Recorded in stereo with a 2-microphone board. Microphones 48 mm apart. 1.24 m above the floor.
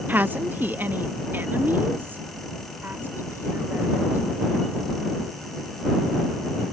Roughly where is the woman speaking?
Right.